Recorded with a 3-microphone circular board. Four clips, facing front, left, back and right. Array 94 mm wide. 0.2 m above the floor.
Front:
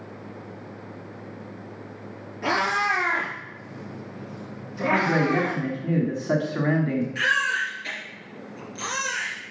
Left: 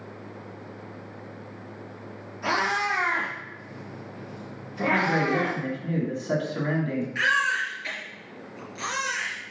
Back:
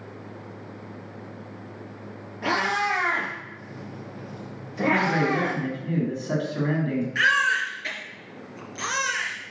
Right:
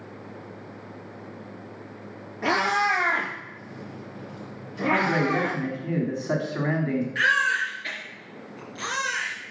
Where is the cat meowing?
110° right, 3 m; by 5.6 s 175° right, 3.5 m.